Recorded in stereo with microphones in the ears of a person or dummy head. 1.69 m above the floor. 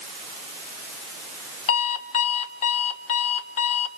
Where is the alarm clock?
30° left (ahead or behind), 1.1 m.